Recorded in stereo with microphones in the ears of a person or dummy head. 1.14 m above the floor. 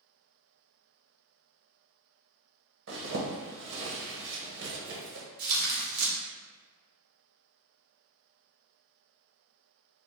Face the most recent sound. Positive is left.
turn(degrees=-50)  # may be behind; listen again after turning